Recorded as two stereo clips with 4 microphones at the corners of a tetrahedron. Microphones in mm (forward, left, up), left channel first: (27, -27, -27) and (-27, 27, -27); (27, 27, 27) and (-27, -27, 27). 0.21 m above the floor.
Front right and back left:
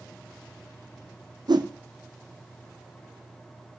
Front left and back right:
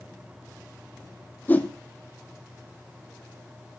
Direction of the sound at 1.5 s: 110° left.